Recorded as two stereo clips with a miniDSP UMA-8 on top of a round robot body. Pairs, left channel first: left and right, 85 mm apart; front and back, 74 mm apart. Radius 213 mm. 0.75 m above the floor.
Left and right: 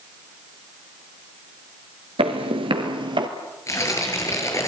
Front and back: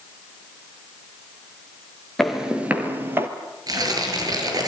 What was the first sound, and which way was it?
Footsteps, 85° right.